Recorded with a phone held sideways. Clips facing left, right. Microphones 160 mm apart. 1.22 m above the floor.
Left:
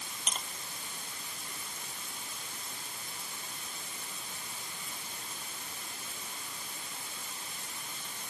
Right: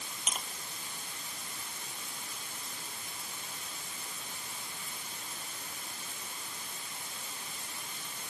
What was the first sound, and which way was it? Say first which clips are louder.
Tapping: even; 5° right (ahead or behind).